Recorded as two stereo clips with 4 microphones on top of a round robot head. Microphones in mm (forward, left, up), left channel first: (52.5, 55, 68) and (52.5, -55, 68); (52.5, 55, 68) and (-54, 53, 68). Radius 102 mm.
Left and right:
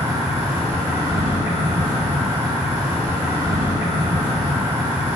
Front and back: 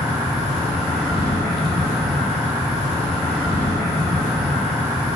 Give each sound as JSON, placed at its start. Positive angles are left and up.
{"t": 0.0, "sound": "an insect", "azimuth_deg": 90, "distance_m": 1.6}